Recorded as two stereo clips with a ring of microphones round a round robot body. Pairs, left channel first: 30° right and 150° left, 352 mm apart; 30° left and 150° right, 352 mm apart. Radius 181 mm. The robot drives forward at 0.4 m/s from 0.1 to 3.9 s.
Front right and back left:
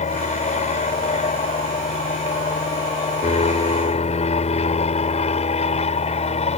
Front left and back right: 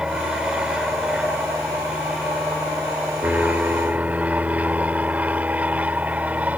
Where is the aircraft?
65° right; by 6.6 s 70° right.